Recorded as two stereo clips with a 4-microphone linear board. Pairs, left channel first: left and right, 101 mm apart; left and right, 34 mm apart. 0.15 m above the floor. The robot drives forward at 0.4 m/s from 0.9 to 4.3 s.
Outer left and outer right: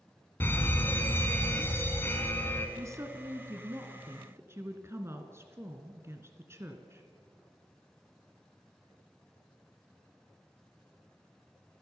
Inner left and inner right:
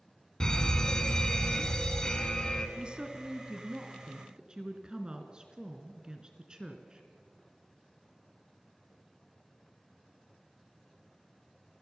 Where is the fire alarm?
20° left (ahead or behind), 2 m.